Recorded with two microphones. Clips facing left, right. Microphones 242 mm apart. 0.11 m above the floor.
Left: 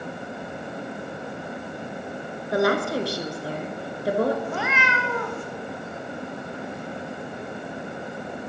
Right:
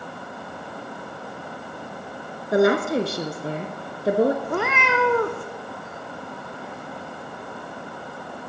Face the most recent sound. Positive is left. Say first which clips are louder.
# right 4 dB
turn(degrees=-60)  # may be behind; listen again after turning